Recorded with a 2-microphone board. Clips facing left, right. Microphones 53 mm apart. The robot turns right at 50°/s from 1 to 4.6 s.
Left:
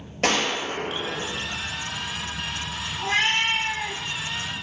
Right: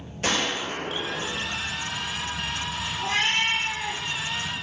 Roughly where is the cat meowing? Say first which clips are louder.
Left 2 dB; ahead left.